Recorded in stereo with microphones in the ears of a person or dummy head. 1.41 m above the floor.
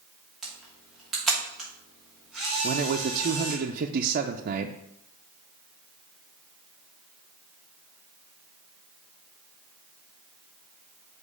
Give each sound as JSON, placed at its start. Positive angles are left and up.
{"t": 0.4, "sound": "a camera shutter", "side_deg": 0, "distance_m": 2.5}
{"t": 2.6, "sound": "a man speaking", "side_deg": -45, "distance_m": 0.5}